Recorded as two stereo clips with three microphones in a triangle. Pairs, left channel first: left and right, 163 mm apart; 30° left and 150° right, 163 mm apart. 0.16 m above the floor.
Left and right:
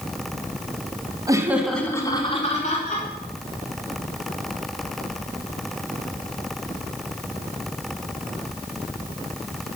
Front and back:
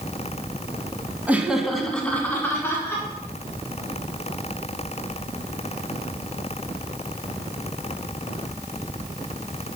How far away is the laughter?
About 1.1 m.